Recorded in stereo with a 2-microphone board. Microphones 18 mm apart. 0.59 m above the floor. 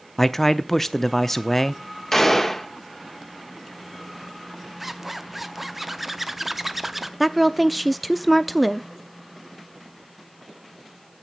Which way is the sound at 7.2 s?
Centre (ahead or behind).